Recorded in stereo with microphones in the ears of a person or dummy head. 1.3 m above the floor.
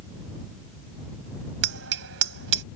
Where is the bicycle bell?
75° right (ahead or behind).